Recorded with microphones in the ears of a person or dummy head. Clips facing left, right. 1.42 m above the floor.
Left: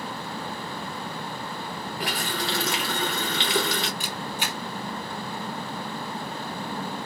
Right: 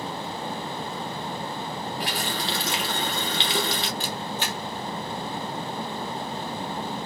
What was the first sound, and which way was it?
A running tap, 25° right (ahead or behind).